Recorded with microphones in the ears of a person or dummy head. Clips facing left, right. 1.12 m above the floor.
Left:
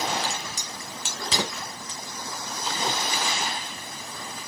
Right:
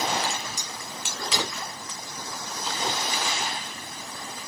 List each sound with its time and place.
0.2 s a crack: 35° left (ahead or behind), 1.4 m